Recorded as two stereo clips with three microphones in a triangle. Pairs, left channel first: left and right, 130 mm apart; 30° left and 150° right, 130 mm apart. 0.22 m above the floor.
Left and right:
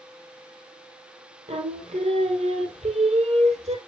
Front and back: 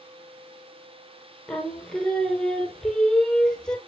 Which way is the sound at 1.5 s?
55° right.